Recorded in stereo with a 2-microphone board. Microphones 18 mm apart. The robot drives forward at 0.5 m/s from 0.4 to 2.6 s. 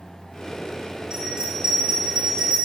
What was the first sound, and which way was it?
A bell, 50° right (ahead or behind).